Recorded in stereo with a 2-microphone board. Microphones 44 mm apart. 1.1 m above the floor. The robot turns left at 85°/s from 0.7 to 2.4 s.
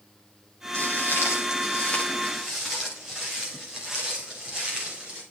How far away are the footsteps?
About 8.5 m.